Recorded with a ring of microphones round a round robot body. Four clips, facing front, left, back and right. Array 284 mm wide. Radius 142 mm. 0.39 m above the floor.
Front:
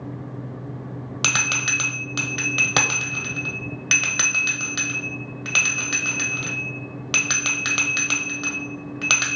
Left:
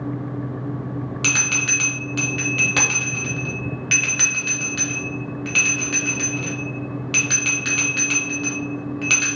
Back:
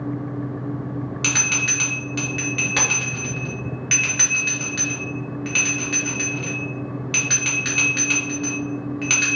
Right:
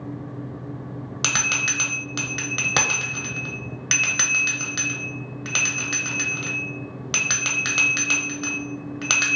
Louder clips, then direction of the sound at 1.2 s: Left 2 dB, even; 35° right.